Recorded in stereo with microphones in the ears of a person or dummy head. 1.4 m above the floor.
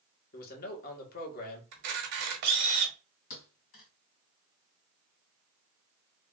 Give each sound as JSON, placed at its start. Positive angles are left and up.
{"t": 0.3, "sound": "a man speaking", "side_deg": 50, "distance_m": 1.6}
{"t": 1.7, "sound": "a camera shutter", "side_deg": -60, "distance_m": 1.1}
{"t": 3.3, "sound": "a thud", "side_deg": 50, "distance_m": 1.9}